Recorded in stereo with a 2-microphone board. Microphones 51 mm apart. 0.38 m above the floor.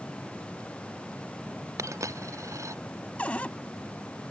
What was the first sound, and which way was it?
A dropped coin, 80° right.